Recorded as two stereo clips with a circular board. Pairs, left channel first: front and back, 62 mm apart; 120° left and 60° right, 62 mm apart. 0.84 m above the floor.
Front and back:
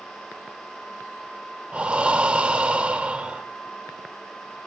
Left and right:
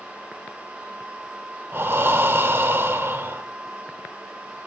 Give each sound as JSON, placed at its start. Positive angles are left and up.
{"t": 1.7, "sound": "breathing", "azimuth_deg": -110, "distance_m": 0.9}